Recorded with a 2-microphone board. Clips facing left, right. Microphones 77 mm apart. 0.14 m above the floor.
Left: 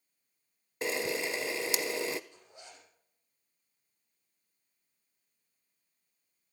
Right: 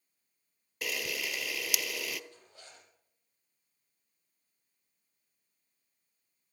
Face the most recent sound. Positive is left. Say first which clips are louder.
# left 2 dB
turn(degrees=20)  # may be behind; listen again after turning